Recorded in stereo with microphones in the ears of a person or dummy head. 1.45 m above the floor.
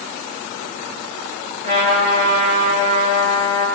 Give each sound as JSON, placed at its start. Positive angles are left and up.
{"t": 1.6, "sound": "a trumpet", "side_deg": -55, "distance_m": 9.5}